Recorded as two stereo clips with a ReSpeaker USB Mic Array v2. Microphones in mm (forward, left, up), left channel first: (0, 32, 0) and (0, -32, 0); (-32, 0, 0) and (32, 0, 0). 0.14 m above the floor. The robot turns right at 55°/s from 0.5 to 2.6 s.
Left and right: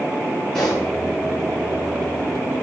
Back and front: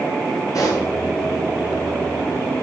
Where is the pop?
165° left, 7 m; by 0.9 s 175° right, 7 m.